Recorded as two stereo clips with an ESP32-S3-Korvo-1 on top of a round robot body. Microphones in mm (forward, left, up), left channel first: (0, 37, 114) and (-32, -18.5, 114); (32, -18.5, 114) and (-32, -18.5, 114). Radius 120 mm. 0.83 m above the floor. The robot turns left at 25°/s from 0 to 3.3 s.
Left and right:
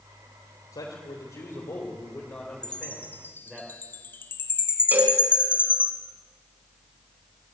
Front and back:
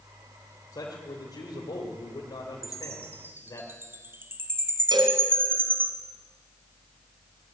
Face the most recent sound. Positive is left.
turn(degrees=175)